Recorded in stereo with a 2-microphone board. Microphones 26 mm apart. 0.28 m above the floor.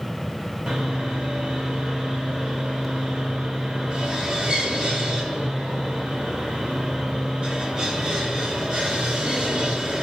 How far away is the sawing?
About 1.4 m.